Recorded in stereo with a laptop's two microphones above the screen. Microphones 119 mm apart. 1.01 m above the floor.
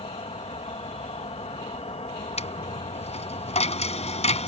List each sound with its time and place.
0.0 s an insect: 60° left (ahead or behind)
2.4 s a dropped coin: 65° left (ahead or behind)